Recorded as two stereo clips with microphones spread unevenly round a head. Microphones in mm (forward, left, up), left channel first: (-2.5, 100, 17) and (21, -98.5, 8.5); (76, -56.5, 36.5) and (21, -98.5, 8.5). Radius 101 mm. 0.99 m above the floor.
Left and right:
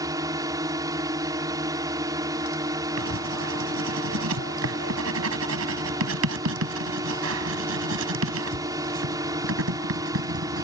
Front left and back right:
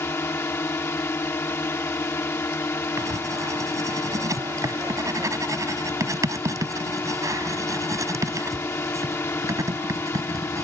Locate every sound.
0.0 s a drone: 10° right
3.0 s writing: 100° right